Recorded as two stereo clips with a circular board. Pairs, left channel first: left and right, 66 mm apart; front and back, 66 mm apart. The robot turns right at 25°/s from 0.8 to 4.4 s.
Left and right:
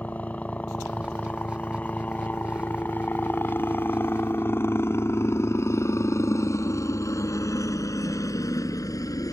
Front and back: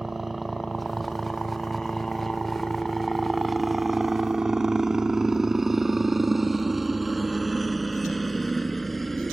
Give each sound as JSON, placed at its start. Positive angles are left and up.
{"t": 0.0, "sound": "a helicopter", "azimuth_deg": 100}